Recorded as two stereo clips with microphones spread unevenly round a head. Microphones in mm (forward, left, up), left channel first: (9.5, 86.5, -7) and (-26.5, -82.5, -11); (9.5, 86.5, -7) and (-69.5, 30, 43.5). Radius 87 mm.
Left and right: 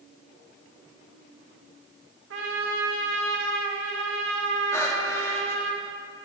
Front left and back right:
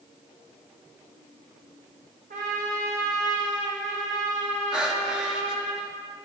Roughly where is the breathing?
Behind left.